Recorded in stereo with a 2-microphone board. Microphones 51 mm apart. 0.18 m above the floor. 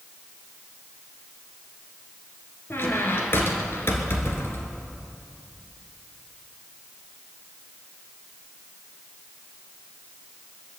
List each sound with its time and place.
2.7 s a squeak: 50° left (ahead or behind), 1.7 m